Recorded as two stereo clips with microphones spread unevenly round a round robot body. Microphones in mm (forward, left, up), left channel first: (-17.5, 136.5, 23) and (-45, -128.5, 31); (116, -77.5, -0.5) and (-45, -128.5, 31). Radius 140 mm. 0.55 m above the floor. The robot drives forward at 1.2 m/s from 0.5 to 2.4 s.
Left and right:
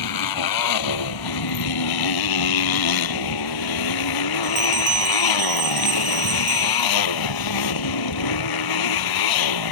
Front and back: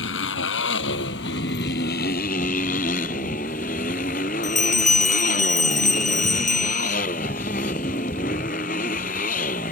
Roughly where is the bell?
Ahead right.